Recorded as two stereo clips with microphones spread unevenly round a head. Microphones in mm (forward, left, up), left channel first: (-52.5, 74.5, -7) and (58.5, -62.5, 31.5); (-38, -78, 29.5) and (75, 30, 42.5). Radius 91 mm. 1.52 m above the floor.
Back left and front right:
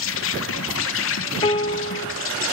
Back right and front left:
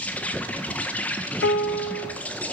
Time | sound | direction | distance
0.0 | an insect | 140° left | 1.6 m
1.4 | a piano | 165° right | 1.1 m